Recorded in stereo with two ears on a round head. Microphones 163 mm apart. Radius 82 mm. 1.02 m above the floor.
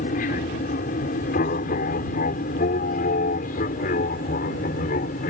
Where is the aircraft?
45° left (ahead or behind).